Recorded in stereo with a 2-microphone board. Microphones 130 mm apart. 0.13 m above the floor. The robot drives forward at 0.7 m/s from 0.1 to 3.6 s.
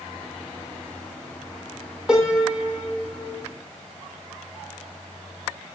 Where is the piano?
5° right (ahead or behind), 2.5 m.